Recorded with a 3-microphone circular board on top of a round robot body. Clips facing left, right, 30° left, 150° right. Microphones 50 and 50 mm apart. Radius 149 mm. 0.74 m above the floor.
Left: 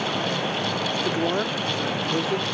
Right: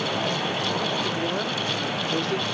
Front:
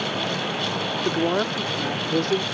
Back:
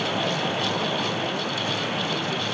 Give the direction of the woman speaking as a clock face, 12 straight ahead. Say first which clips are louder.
Left 3 dB, front 5 dB; 11 o'clock.